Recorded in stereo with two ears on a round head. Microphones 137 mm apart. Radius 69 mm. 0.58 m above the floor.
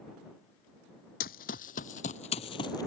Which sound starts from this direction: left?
Running footsteps, at 1.2 s.